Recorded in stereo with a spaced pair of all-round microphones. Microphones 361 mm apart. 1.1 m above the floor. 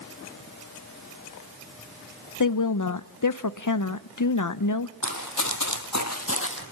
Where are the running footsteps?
50° left (ahead or behind), 2 m; by 6.6 s 30° left (ahead or behind), 1.9 m.